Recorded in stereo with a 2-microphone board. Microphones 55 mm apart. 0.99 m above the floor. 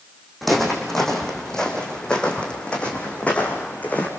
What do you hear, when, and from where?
0.4 s footsteps: centre (ahead or behind), 3.5 m; by 4.1 s 30° left (ahead or behind), 4 m